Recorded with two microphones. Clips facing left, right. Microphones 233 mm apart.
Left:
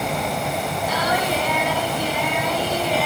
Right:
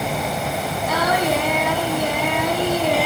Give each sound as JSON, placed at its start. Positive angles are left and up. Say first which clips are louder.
{"t": 0.9, "sound": "singing", "louder": "right 4 dB", "side_deg": -60, "distance_m": 2.5}